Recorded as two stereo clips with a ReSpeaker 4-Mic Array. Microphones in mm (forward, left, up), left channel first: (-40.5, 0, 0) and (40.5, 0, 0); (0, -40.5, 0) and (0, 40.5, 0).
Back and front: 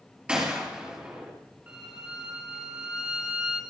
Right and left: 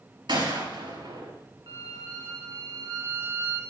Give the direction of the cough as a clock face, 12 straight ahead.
I don't hear a cough.